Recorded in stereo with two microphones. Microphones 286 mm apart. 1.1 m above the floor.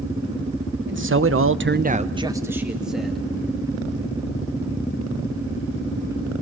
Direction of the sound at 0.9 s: 40° right (ahead or behind).